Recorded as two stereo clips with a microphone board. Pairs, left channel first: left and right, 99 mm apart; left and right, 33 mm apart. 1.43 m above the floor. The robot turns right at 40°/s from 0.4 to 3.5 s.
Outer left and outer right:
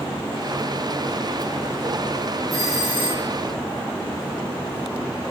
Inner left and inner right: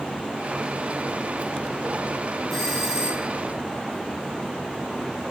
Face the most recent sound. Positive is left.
turn(degrees=-145)